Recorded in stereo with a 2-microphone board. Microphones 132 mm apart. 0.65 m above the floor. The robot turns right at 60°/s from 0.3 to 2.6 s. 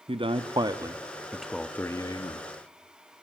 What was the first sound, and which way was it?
A man speaking, 70° right.